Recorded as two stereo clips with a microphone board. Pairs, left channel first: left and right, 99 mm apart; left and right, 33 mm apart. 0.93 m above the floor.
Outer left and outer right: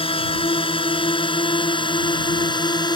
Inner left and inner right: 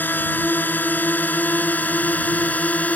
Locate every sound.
0.0 s a drone: 70° left (ahead or behind); by 3.0 s 50° left (ahead or behind)